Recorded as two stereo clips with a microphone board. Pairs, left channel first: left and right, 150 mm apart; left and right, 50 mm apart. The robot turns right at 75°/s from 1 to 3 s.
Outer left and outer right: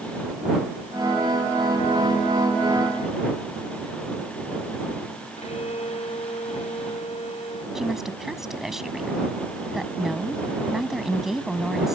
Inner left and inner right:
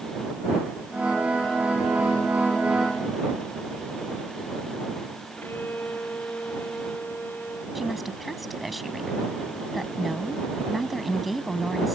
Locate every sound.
5.4 s a violin: 45° left (ahead or behind)
7.8 s a woman speaking: centre (ahead or behind)